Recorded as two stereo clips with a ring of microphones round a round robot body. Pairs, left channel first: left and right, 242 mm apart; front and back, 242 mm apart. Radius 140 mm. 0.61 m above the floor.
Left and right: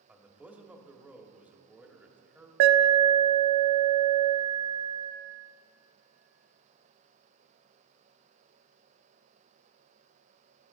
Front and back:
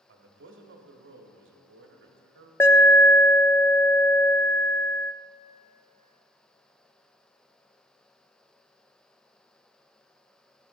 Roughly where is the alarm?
Right.